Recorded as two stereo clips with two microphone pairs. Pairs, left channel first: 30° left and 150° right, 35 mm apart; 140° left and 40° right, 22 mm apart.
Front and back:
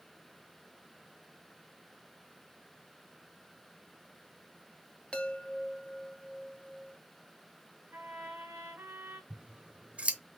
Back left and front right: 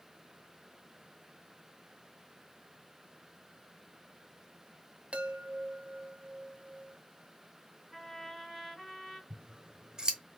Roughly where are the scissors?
Right.